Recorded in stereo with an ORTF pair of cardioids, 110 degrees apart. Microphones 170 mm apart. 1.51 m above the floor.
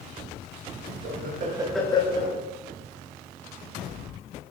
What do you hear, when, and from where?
1.0 s laughter: 70° right, 1.0 m; by 2.4 s 55° left, 1.0 m